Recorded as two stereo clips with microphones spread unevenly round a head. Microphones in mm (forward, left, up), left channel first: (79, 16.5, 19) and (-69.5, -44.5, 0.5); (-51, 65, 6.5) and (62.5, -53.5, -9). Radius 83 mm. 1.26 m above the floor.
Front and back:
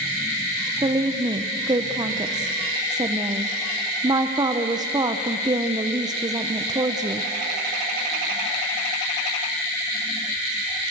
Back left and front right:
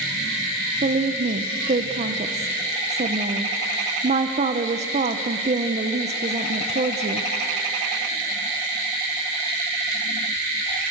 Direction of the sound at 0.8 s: 95° right.